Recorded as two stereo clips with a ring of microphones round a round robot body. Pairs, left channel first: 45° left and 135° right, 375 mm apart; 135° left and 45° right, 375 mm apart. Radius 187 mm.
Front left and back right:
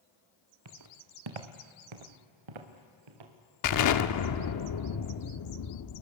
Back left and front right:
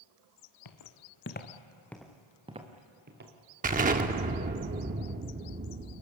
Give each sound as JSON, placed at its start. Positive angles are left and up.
{"t": 0.7, "sound": "footsteps", "azimuth_deg": 175, "distance_m": 2.0}
{"t": 3.6, "sound": "an explosion", "azimuth_deg": 20, "distance_m": 0.9}